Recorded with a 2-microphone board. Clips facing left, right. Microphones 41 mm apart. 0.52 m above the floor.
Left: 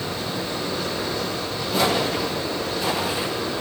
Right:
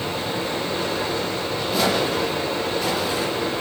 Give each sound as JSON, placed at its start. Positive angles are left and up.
{"t": 0.0, "sound": "running water", "side_deg": -50, "distance_m": 8.0}
{"t": 1.7, "sound": "footsteps", "side_deg": 0, "distance_m": 7.5}